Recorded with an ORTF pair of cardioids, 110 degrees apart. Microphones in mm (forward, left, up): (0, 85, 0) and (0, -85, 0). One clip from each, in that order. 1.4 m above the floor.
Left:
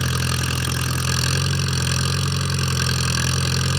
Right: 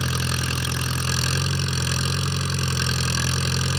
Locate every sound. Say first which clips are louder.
0.0 s an engine running: left 2 dB; 15° left